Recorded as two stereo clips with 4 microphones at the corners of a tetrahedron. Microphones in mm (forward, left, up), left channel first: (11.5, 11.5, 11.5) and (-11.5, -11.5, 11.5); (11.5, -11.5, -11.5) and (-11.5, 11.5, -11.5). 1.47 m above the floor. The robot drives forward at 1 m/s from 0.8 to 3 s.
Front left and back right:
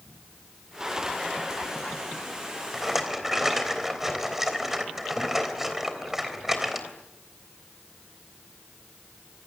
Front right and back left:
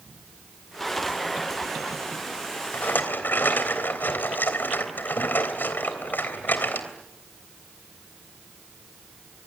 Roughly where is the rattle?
Ahead right.